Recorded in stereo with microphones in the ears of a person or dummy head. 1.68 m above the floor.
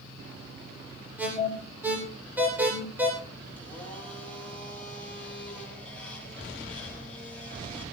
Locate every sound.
1.2 s an alarm: 10° right (ahead or behind), 8 m
3.6 s a blender: 5° left (ahead or behind), 7 m